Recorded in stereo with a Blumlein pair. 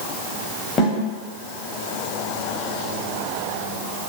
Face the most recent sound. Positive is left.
turn(degrees=20)